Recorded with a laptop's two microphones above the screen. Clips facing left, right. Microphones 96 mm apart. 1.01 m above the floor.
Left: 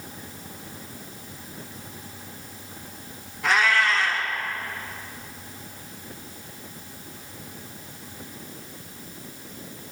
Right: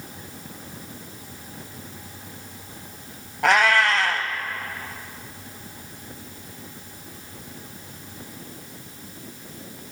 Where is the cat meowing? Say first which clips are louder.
Right 3 dB; 70° right (ahead or behind), 1.9 m.